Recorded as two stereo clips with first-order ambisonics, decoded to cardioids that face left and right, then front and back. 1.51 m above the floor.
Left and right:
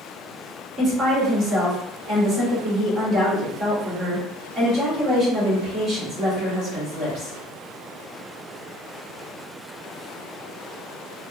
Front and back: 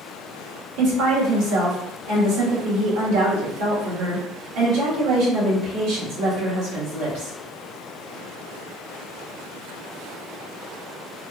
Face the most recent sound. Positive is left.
turn(degrees=-155)